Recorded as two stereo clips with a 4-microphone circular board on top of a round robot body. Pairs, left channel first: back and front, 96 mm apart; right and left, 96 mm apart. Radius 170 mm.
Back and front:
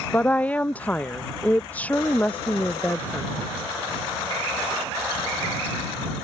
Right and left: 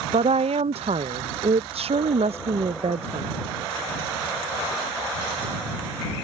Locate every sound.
0.1 s a woman speaking: 105° left